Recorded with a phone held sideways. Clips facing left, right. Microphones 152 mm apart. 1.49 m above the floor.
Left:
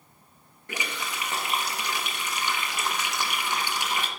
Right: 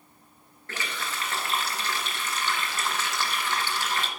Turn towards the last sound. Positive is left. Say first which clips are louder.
# left 1 dB
turn(degrees=15)  # may be behind; listen again after turning